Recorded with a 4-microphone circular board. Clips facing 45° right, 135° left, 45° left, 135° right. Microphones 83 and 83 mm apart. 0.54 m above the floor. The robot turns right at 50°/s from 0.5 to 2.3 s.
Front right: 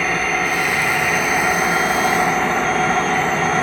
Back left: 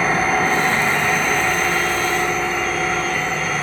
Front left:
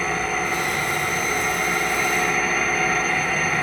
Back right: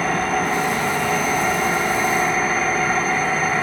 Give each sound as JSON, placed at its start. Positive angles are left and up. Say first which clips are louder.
{"t": 0.0, "sound": "an engine running", "louder": "back left 2 dB, back right 4 dB", "azimuth_deg": -170, "distance_m": 0.8}